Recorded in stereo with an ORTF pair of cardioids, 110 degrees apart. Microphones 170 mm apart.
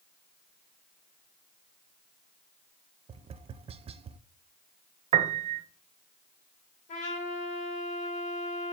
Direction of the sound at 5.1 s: 40° right.